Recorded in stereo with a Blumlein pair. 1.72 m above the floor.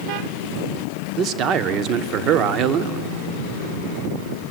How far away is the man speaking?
About 0.7 m.